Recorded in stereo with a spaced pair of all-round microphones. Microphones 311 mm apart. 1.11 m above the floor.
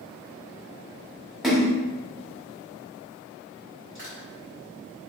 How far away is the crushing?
About 1.9 m.